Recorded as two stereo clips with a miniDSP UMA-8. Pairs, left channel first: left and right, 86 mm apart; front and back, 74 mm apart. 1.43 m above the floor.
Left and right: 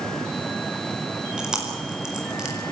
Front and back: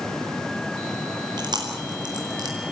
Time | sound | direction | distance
1.4 | chewing | 170° right | 4.5 m